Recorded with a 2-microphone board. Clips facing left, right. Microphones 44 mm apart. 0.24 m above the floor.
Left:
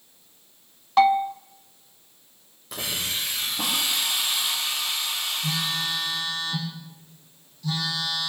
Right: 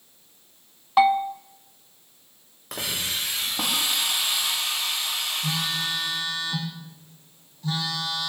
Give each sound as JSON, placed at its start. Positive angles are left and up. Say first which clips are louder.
{"t": 1.0, "sound": "a bell", "louder": "even", "side_deg": -10, "distance_m": 0.9}
{"t": 2.7, "sound": "a hiss", "louder": "even", "side_deg": -55, "distance_m": 10.0}
{"t": 5.4, "sound": "a phone buzzing", "louder": "left 1 dB", "side_deg": -35, "distance_m": 6.5}